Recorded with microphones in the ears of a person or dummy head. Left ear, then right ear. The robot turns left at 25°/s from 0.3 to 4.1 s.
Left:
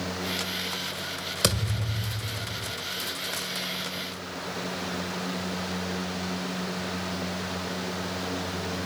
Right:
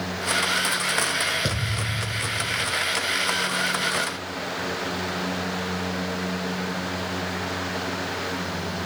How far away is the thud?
About 1.6 m.